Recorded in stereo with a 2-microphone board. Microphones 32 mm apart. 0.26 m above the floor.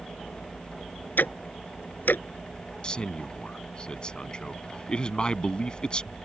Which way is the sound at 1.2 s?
75° left (ahead or behind).